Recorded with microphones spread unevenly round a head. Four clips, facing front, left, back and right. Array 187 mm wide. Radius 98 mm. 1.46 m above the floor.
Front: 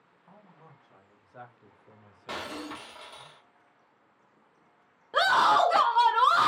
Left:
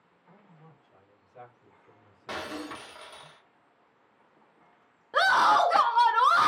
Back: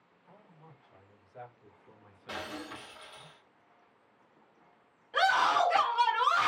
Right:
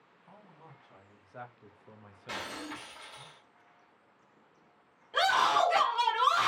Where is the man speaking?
40° right, 1.4 m; by 3.3 s 150° right, 0.7 m.